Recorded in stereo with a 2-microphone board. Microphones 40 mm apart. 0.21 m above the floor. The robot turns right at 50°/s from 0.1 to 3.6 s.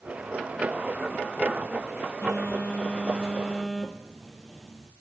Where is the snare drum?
No snare drum in this recording.